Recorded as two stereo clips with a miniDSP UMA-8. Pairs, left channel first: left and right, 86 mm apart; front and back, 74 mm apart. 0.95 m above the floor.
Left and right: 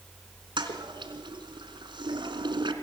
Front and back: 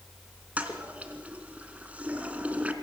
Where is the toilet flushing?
110° right, 3 m.